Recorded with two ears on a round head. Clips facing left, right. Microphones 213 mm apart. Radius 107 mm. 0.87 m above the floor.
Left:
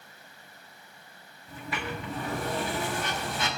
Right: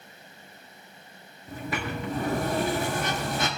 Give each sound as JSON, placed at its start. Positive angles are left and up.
{"t": 1.5, "sound": "a sliding door", "side_deg": -35, "distance_m": 1.2}